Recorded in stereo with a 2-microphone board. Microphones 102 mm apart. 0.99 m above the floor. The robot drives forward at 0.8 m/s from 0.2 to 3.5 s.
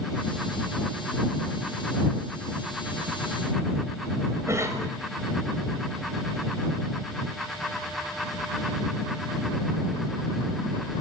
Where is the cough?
30° right (ahead or behind), 5 m.